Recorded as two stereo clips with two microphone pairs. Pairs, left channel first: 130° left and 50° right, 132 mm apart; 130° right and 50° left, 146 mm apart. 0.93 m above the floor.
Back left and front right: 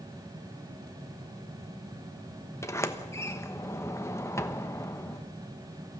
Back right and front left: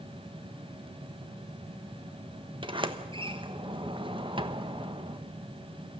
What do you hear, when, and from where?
2.6 s a sliding door: 75° left, 1.1 m